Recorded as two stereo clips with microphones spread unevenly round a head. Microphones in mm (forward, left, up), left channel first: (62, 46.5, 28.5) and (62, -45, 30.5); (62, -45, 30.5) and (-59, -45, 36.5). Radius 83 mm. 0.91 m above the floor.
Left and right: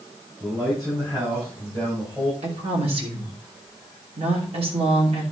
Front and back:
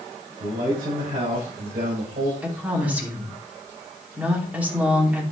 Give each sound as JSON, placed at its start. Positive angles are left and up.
{"t": 0.4, "sound": "a man speaking", "azimuth_deg": -165, "distance_m": 5.5}
{"t": 2.4, "sound": "a woman speaking", "azimuth_deg": -100, "distance_m": 2.5}